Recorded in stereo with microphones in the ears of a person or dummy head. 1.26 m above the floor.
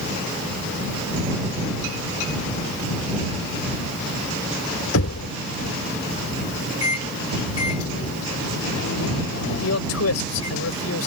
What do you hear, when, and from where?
4.9 s knocking: 80° left
6.8 s a microwave: 85° left
9.5 s a man speaking: 85° left